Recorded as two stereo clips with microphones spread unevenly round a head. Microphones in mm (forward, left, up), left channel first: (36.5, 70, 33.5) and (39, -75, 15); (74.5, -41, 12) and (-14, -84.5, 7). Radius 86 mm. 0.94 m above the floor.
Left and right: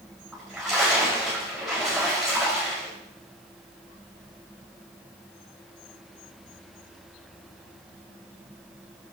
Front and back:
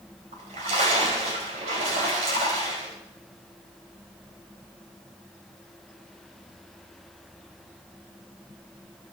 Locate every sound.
0.3 s a splash: 175° right, 5 m